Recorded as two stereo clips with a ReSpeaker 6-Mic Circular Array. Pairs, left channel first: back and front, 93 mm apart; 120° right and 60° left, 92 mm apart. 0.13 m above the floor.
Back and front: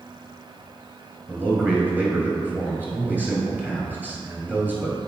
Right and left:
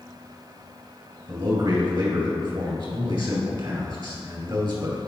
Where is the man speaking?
70° left, 2.5 m.